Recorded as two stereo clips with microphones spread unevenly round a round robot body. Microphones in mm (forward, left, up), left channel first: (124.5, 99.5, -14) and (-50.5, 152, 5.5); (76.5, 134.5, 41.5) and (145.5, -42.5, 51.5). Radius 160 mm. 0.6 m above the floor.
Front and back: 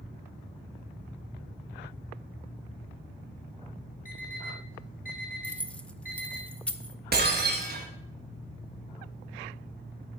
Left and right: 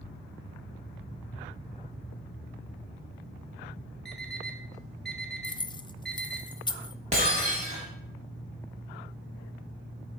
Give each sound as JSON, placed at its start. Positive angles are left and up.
{"t": 4.0, "sound": "an alarm clock", "azimuth_deg": 25, "distance_m": 2.5}
{"t": 5.4, "sound": "keys jangling", "azimuth_deg": 55, "distance_m": 0.6}
{"t": 7.1, "sound": "breaking glass", "azimuth_deg": -140, "distance_m": 1.3}